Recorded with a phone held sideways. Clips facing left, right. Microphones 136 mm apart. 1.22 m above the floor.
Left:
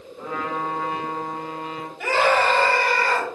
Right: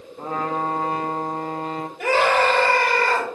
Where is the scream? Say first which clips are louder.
Right 1 dB; 60° right (ahead or behind), 5 m.